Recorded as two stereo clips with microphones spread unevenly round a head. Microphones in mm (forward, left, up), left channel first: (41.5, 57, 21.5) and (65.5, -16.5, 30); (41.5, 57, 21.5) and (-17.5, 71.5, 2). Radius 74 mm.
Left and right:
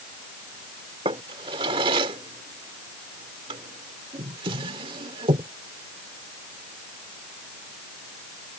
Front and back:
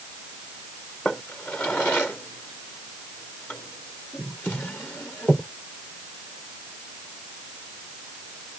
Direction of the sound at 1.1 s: 90° right.